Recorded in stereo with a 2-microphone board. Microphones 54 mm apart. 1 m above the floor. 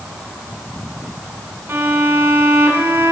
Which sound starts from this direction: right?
A violin, at 1.7 s.